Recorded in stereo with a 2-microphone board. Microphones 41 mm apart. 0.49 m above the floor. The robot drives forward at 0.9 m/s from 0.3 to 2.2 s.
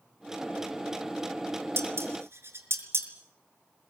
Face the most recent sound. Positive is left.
turn(degrees=-75)  # may be behind; listen again after turning